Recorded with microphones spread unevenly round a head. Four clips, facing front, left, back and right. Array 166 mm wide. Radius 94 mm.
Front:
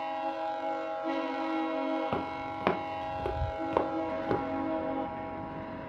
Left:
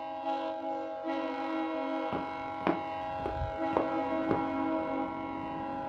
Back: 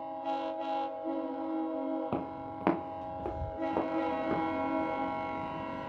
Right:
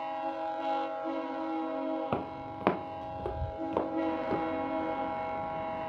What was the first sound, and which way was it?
Footsteps, 90° right.